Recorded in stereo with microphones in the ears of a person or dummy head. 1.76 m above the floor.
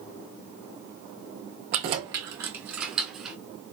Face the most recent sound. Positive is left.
turn(degrees=0)  # may be behind; listen again after turning